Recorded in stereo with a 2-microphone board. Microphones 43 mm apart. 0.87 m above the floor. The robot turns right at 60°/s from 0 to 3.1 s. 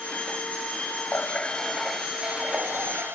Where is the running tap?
135° left; by 3.2 s 105° right.